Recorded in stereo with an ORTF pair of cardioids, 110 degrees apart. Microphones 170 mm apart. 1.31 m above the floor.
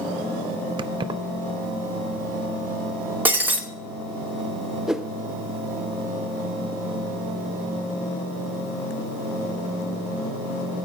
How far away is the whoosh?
About 0.6 m.